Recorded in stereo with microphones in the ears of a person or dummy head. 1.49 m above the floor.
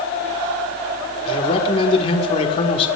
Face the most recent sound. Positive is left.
turn(degrees=30)  # may be behind; listen again after turning